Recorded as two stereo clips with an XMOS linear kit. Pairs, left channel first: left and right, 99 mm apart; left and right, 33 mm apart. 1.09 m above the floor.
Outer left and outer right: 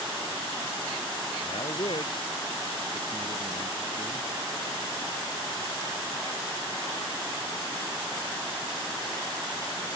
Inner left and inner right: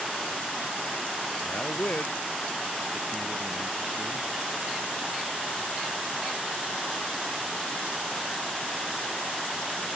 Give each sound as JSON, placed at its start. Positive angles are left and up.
{"t": 1.4, "sound": "a man speaking", "side_deg": 55}